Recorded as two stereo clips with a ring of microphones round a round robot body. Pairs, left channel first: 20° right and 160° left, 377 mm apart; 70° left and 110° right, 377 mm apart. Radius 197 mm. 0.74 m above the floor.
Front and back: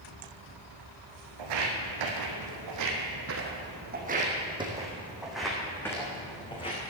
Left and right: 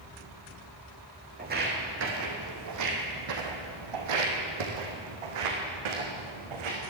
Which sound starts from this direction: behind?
Footsteps, at 1.4 s.